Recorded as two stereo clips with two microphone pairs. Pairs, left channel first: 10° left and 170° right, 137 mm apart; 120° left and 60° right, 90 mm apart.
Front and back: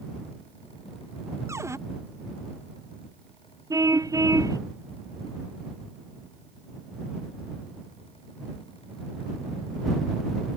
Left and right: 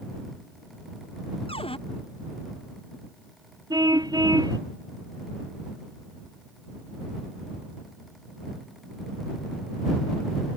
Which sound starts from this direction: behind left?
A cupboard door, at 1.5 s.